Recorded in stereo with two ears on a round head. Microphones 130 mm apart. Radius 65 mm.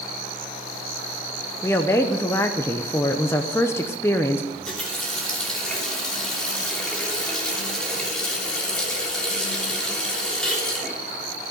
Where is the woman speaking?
20° left (ahead or behind), 0.8 m.